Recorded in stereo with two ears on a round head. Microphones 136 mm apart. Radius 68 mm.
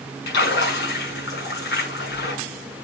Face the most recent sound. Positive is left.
turn(degrees=75)  # may be behind; listen again after turning